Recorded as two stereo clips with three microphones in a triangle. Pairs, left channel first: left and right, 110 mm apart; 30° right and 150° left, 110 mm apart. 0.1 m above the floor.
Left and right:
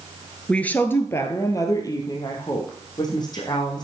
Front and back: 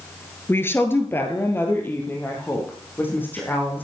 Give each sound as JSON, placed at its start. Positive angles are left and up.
{"t": 0.5, "sound": "a woman speaking", "azimuth_deg": 15, "distance_m": 1.4}